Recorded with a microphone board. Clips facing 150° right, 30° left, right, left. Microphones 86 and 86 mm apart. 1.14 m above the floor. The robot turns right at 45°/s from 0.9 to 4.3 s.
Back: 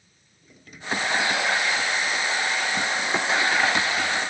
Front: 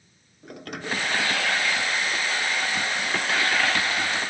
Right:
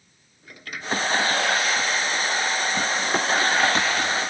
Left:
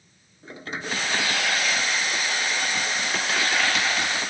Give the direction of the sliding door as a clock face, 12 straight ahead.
11 o'clock.